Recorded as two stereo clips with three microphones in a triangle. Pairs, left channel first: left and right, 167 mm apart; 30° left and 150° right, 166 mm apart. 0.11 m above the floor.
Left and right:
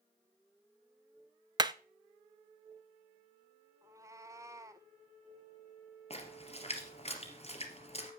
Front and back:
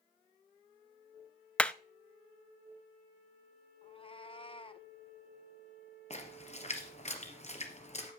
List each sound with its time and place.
1.6 s hammering: 50° right, 0.6 m
3.8 s a cat meowing: 25° right, 0.8 m
6.1 s a splash: 55° left, 2.5 m